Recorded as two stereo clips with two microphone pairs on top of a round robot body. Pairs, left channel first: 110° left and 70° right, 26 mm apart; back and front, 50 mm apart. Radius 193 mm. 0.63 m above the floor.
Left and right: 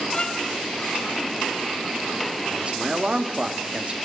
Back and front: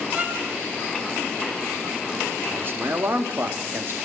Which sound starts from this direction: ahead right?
A man speaking, at 2.5 s.